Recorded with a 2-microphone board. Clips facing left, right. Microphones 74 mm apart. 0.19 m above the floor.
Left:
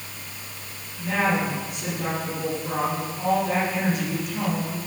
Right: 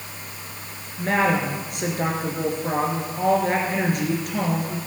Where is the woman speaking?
65° right (ahead or behind), 3.5 m.